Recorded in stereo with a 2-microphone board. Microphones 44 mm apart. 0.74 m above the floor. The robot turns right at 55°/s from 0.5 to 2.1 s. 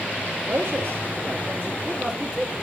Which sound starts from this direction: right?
A man speaking, at 0.5 s.